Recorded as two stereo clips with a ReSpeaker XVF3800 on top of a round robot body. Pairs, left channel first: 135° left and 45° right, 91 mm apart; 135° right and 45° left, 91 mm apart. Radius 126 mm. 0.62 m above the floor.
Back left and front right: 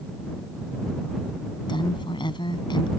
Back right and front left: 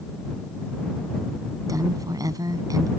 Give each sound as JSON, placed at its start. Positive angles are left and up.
{"t": 1.7, "sound": "a woman speaking", "azimuth_deg": 100}